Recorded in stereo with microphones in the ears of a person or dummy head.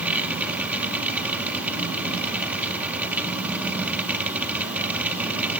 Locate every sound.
0.0 s a machine running: 5° right (ahead or behind), 2 m